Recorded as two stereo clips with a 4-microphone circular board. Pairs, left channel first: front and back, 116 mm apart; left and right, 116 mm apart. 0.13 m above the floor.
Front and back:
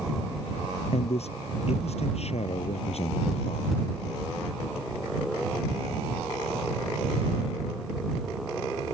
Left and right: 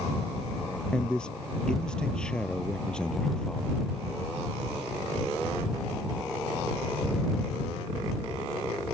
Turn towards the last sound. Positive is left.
turn(degrees=10)